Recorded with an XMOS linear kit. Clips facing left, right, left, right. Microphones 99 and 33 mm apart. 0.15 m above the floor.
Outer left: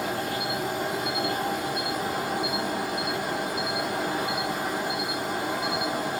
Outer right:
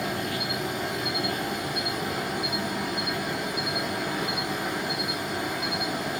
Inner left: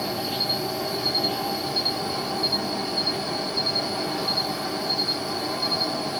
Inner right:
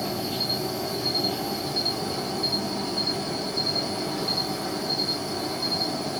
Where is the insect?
30° left (ahead or behind), 1.5 m.